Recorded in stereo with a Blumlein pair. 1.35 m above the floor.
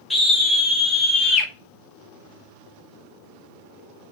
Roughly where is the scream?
Ahead.